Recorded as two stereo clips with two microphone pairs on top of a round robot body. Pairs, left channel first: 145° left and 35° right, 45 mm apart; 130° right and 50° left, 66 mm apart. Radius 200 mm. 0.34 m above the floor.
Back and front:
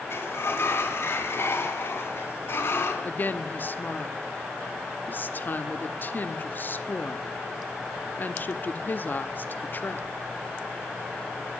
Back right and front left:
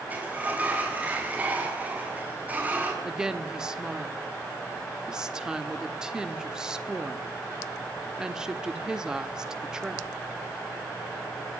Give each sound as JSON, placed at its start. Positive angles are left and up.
{"t": 0.1, "sound": "a sliding door", "azimuth_deg": 120, "distance_m": 6.5}
{"t": 3.0, "sound": "a woman speaking", "azimuth_deg": 135, "distance_m": 1.7}